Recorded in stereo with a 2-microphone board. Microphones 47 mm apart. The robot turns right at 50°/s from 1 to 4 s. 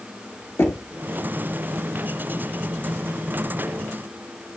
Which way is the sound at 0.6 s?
60° left (ahead or behind).